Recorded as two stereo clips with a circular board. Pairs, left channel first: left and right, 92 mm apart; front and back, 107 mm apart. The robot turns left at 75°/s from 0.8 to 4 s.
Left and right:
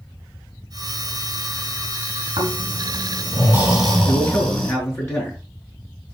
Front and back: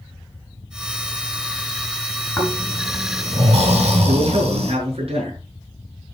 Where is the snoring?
70° right, 5.5 m; by 4.7 s 165° left, 5.5 m.